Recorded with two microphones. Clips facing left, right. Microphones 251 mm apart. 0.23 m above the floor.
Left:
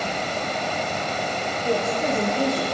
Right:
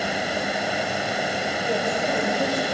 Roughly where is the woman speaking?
Left.